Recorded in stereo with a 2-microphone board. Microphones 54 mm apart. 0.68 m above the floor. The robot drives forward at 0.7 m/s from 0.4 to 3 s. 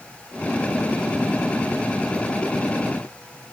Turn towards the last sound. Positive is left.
No sound to turn to.